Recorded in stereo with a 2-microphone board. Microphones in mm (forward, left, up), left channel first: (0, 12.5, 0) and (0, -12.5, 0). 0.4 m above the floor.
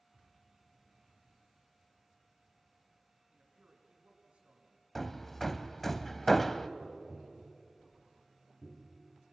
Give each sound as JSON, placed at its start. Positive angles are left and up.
{"t": 3.3, "sound": "a man speaking", "side_deg": -55, "distance_m": 4.5}
{"t": 5.0, "sound": "hammering", "side_deg": 5, "distance_m": 0.9}
{"t": 6.8, "sound": "tapping", "side_deg": 0, "distance_m": 5.5}